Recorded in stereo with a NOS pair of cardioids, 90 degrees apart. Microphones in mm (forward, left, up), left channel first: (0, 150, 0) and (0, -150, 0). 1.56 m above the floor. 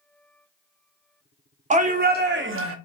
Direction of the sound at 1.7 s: 25° right.